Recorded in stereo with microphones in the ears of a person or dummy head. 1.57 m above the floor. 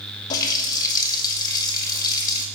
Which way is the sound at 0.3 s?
25° left (ahead or behind).